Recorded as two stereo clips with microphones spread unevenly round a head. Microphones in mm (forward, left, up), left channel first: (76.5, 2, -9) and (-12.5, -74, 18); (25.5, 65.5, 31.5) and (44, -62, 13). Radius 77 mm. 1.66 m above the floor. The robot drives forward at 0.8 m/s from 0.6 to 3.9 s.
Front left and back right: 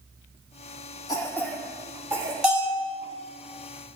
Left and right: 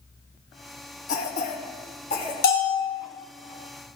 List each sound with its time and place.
1.1 s a cough: 110° left, 0.9 m; by 2.3 s 150° left, 1.5 m
2.4 s a bell: 130° left, 2.0 m; by 2.9 s 140° left, 2 m